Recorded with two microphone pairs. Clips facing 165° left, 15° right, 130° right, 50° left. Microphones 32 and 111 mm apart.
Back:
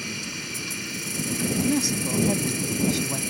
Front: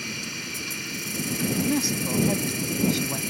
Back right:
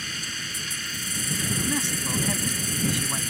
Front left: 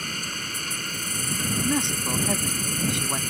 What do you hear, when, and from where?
0.0 s an insect: 75° left
1.6 s a man speaking: 50° left